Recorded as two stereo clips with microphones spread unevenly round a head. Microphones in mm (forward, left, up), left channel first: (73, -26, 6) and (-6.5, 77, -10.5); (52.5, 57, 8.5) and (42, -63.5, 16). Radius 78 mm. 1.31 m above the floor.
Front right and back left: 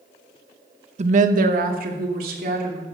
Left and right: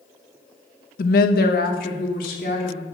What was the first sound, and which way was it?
A woman speaking, 90° left.